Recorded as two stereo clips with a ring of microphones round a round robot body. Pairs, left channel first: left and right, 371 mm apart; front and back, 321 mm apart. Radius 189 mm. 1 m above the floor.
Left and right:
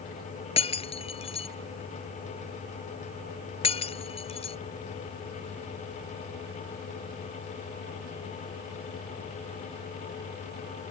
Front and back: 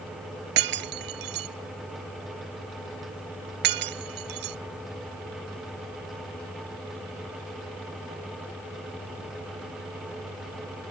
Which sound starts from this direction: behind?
Breaking glass, at 0.6 s.